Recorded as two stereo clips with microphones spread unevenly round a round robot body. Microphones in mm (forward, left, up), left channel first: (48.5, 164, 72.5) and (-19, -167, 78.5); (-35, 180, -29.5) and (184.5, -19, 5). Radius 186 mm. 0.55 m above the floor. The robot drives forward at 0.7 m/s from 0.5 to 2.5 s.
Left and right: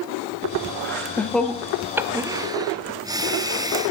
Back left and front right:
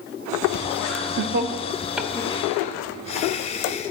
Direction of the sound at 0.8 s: 5° right.